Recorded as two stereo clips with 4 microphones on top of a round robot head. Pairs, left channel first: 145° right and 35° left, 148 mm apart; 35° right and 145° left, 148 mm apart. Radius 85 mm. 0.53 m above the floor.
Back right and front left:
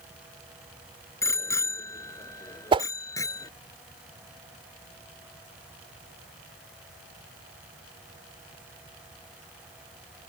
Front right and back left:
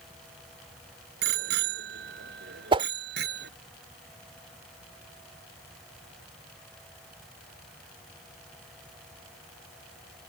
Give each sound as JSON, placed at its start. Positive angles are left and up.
{"t": 1.2, "sound": "a bicycle bell", "azimuth_deg": 145}
{"t": 2.7, "sound": "a whoosh", "azimuth_deg": 90}